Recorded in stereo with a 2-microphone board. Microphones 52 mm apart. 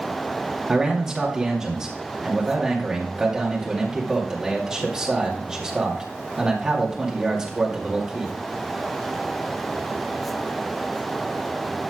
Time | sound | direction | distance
0.7 | a man speaking | 15° right (ahead or behind) | 2.5 m